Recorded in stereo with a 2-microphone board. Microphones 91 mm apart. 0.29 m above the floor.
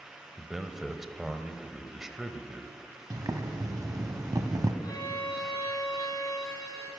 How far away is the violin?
About 2.5 m.